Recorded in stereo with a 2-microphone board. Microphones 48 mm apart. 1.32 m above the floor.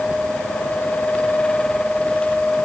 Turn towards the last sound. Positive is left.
No sound to turn to.